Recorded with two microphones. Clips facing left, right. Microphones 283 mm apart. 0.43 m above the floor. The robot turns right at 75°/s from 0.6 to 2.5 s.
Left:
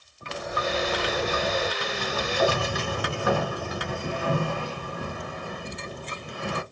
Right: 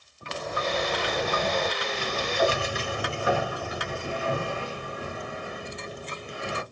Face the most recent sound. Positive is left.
turn(degrees=115)